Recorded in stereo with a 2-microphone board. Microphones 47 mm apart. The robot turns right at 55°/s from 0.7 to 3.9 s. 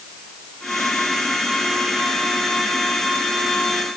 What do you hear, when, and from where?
Only background noise.